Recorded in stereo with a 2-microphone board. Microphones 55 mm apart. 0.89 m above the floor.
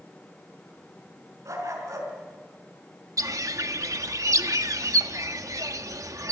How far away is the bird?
About 0.8 m.